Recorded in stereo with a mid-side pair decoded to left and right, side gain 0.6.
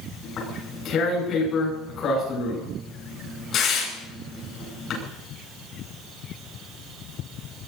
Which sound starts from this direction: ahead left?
Tearing paper, at 0.2 s.